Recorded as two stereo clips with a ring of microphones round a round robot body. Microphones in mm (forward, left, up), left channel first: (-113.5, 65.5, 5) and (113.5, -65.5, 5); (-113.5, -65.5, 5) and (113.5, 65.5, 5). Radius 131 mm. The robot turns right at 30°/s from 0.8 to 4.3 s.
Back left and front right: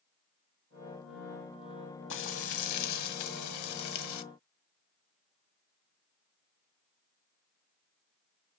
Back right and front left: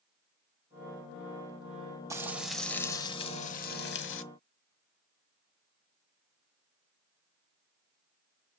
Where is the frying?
105° left, 1.0 m; by 4.2 s 170° left, 1.0 m.